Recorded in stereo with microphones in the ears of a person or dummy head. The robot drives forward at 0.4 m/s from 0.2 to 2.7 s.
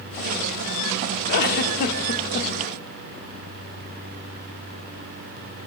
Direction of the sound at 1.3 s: 50° left (ahead or behind).